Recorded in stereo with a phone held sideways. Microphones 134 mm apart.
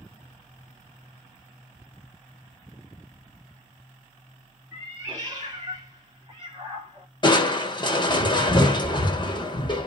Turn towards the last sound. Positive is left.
turn(degrees=35)  # may be behind; listen again after turning